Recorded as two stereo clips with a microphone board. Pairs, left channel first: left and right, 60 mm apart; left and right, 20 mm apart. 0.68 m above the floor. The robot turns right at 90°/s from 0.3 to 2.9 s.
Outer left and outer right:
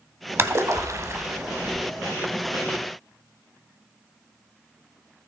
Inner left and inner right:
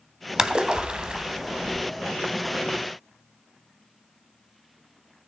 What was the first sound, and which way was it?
A splash, 130° right.